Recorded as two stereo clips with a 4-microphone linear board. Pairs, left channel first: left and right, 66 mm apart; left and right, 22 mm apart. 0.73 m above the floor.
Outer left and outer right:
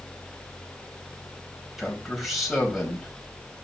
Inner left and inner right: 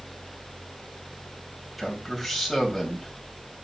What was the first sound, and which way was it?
A man speaking, centre (ahead or behind).